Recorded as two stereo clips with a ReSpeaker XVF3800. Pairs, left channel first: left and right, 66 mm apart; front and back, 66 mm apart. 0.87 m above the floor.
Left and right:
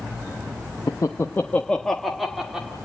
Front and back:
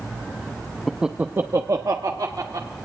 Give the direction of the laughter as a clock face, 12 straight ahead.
9 o'clock.